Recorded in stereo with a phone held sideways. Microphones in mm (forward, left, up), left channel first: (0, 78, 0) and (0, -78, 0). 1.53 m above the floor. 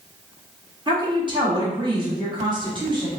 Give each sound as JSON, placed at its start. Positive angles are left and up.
{"t": 0.9, "sound": "a woman speaking", "side_deg": -30, "distance_m": 1.1}